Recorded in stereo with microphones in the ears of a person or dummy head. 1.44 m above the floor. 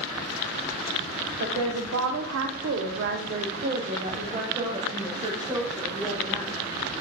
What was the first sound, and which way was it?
A woman speaking, 65° right (ahead or behind).